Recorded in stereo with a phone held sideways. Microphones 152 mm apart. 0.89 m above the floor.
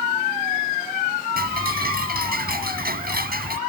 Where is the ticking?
85° right.